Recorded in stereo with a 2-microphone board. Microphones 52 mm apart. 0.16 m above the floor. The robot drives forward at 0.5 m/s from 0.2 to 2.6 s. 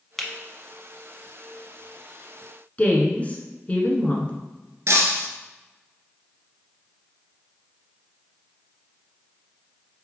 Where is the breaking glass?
60° right (ahead or behind), 1.4 m.